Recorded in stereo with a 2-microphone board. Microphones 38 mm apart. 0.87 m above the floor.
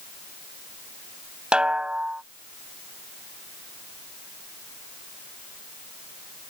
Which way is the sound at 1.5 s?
25° right (ahead or behind).